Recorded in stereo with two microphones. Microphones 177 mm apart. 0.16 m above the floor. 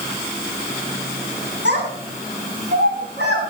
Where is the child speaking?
70° right (ahead or behind), 9 m; by 3.4 s 75° right (ahead or behind), 10.5 m.